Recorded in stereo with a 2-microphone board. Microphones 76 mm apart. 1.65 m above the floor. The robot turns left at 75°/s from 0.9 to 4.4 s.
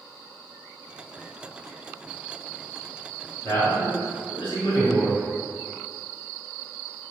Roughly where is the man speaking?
Behind left.